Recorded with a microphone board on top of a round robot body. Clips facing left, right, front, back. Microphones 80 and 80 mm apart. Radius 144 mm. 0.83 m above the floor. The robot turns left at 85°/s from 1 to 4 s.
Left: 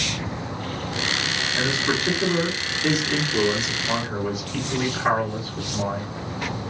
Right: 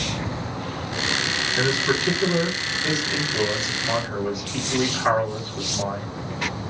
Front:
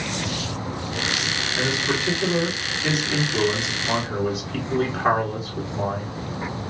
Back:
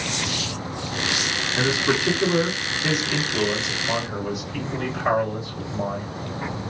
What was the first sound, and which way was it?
A man speaking, 165° right.